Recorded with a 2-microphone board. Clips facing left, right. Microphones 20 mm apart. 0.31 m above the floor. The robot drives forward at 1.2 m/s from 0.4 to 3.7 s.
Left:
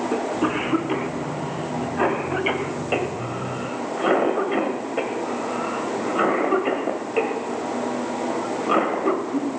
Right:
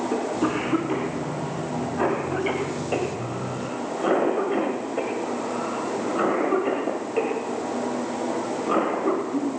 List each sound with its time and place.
0.1 s a cough: 15° left (ahead or behind), 4 m; by 9.5 s 35° left (ahead or behind), 1.7 m